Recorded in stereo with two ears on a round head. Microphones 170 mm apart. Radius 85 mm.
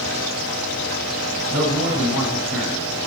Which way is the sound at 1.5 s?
60° right (ahead or behind).